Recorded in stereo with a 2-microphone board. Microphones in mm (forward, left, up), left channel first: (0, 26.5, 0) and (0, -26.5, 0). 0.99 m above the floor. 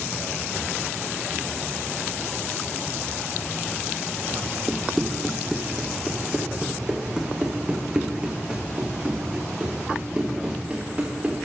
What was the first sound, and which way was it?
Running footsteps, centre (ahead or behind).